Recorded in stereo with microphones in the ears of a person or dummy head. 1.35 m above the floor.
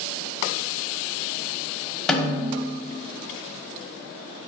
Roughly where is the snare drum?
Centre.